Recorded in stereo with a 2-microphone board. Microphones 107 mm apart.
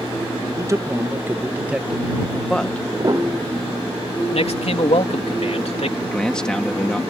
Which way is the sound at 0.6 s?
30° right (ahead or behind).